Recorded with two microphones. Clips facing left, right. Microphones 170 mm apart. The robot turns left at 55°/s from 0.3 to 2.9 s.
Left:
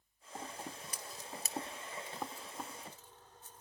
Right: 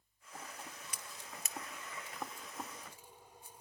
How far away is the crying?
I don't hear crying.